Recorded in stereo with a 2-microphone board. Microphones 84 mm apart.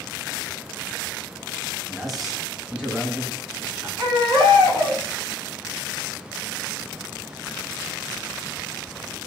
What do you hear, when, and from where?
1.9 s a man speaking: 5° left (ahead or behind), 1.6 m; by 3.9 s 20° right (ahead or behind), 3 m
4.0 s a baby crying: 60° right (ahead or behind), 2.5 m